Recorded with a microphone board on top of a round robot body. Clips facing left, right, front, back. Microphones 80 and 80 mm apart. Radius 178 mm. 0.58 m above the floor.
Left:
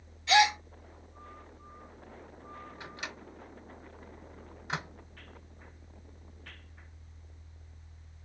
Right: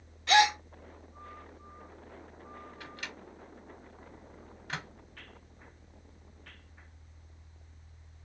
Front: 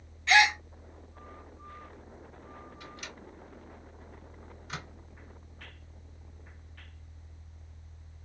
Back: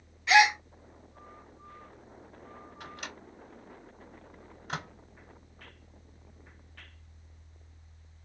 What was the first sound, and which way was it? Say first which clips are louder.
A gasp: even, back 2 dB; 100° right.